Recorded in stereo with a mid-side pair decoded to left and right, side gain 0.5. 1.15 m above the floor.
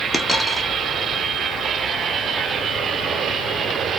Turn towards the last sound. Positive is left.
turn(degrees=5)